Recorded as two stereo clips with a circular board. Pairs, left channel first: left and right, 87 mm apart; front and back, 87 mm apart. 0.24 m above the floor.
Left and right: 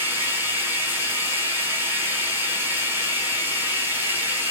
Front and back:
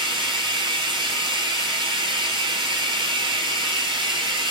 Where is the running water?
155° right, 2.5 m.